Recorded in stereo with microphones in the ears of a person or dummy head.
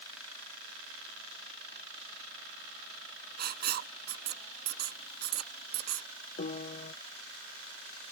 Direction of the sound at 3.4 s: 60° right (ahead or behind).